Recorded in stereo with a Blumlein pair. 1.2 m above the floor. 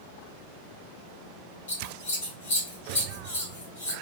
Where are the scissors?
65° left, 2.0 m.